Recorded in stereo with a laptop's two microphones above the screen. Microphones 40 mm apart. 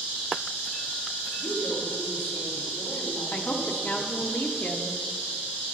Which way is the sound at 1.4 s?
80° left.